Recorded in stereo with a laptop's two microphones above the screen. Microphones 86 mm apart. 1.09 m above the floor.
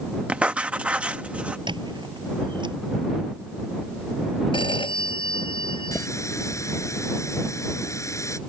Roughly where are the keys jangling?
No keys jangling in this recording.